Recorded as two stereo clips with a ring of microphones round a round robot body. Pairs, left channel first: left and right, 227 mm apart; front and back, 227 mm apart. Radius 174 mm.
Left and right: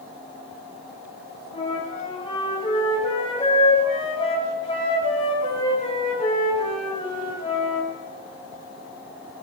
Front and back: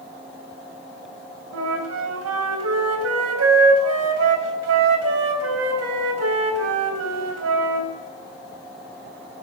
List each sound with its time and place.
1.5 s a flute: 165° left, 2 m